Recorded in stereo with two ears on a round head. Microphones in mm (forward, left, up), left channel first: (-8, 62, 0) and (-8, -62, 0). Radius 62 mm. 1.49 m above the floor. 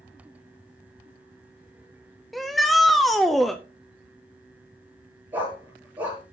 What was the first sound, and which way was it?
A shout, centre (ahead or behind).